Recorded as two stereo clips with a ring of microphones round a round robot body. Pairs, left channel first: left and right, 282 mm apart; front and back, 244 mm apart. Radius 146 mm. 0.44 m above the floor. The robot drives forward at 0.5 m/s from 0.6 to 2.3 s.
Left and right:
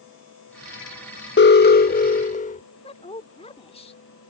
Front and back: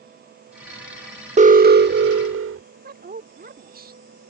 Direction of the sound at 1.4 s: 125° left.